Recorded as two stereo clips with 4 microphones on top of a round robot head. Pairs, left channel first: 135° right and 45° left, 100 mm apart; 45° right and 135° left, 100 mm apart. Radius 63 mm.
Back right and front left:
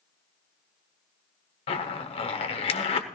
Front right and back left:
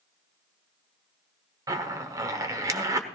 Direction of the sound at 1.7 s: 165° right.